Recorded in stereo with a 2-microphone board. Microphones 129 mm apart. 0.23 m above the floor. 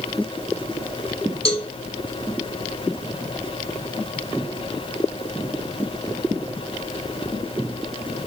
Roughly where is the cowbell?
Left.